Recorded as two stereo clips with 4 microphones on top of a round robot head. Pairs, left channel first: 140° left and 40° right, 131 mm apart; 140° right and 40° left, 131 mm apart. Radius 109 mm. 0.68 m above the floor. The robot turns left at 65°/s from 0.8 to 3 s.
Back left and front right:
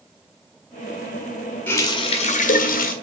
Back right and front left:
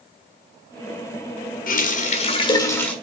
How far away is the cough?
I don't hear a cough.